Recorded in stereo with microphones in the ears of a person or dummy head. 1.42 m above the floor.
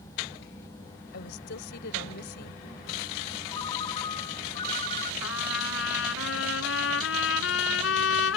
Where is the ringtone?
30° left (ahead or behind).